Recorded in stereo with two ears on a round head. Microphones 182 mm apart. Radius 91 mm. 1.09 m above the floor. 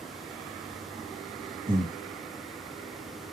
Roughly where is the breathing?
Right.